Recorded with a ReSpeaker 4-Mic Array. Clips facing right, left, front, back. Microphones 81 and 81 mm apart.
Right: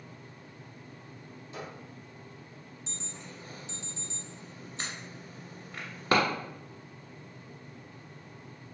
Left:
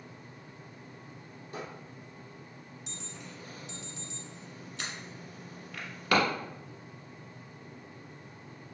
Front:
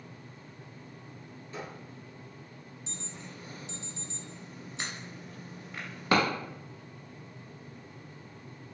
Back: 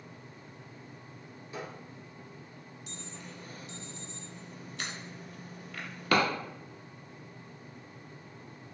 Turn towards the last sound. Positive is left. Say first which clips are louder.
# even, front 1 dB
turn(degrees=-45)